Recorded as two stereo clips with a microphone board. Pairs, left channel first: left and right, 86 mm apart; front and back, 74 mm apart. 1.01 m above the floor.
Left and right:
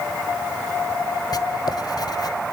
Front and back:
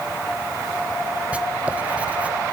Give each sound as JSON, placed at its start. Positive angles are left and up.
{"t": 1.3, "sound": "writing", "azimuth_deg": 110, "distance_m": 1.2}